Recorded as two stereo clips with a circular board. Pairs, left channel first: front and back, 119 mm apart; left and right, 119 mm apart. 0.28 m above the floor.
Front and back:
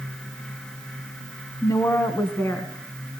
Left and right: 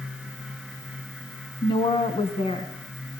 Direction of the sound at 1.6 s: 55° left.